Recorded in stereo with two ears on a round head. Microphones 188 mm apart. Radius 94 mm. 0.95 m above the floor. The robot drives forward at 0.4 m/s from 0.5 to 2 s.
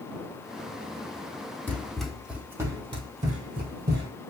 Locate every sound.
1.7 s running footsteps: 10° left (ahead or behind), 1.5 m; by 4.1 s 55° right (ahead or behind), 1.6 m